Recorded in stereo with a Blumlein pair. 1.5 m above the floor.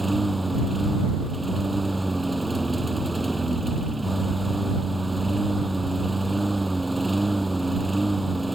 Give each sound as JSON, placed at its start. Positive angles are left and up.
{"t": 0.0, "sound": "a lawn mower", "azimuth_deg": -5}